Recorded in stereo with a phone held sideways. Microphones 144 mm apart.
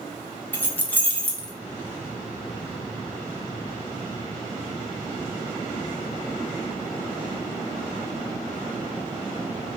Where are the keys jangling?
15° left (ahead or behind), 0.6 m; by 1.5 s 10° left (ahead or behind), 1.0 m.